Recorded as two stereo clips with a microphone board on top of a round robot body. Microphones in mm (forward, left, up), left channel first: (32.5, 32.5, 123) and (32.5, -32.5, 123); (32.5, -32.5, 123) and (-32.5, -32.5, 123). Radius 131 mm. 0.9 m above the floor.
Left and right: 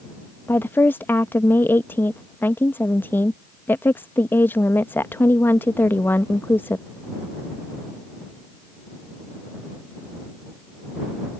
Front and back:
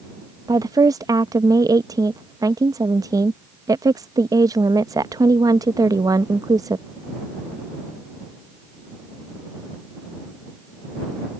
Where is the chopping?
No chopping in this recording.